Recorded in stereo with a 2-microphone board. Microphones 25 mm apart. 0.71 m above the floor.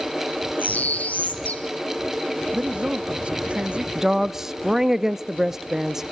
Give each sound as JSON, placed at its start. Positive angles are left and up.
{"t": 0.6, "sound": "a bird", "side_deg": 70, "distance_m": 2.0}
{"t": 2.5, "sound": "a man speaking", "side_deg": -40, "distance_m": 0.9}
{"t": 4.0, "sound": "a woman speaking", "side_deg": -15, "distance_m": 0.7}